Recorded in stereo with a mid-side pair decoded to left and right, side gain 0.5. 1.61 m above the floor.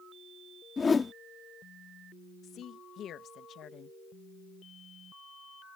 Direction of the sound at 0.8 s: 30° left.